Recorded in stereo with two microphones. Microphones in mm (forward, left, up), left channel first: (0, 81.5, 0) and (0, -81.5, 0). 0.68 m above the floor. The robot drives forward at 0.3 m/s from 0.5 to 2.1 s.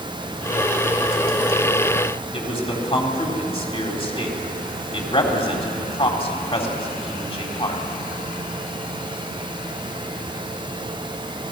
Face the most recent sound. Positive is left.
turn(degrees=35)  # may be behind; listen again after turning